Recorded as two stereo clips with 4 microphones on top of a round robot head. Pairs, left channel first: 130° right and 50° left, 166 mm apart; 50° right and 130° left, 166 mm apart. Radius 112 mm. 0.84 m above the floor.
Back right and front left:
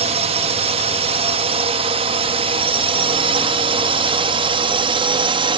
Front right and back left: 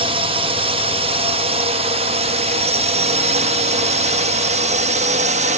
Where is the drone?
85° left; by 5.6 s 105° left.